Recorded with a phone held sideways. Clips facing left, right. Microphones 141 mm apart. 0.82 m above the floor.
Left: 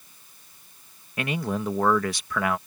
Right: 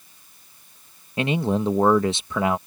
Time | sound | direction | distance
1.2 | a man speaking | 25° right (ahead or behind) | ?